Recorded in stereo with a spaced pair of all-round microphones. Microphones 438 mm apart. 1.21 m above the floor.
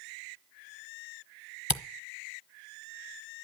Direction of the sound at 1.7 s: 55° left (ahead or behind).